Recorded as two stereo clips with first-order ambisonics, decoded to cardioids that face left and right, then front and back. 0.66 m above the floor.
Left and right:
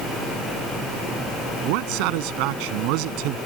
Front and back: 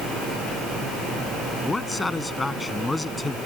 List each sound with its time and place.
1.6 s a man speaking: 80° right